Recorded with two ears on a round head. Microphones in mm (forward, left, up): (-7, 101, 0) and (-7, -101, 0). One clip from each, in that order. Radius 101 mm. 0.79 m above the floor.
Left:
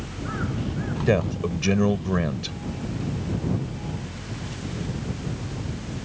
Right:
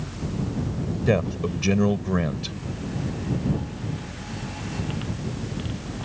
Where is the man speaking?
5° left (ahead or behind).